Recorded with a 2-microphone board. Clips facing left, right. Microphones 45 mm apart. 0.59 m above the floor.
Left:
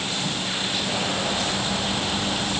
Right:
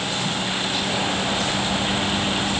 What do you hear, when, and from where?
Only background noise.